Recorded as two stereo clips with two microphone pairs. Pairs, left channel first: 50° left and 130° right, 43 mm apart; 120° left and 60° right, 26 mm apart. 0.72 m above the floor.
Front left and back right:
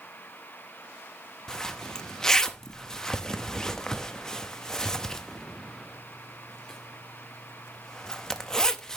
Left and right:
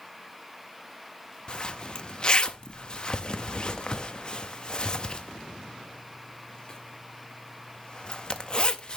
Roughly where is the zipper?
Behind left.